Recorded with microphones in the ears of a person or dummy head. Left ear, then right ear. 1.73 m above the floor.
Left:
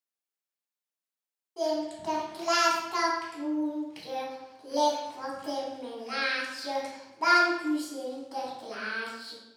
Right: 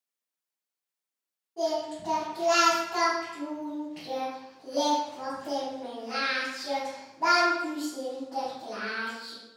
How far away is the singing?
About 0.8 m.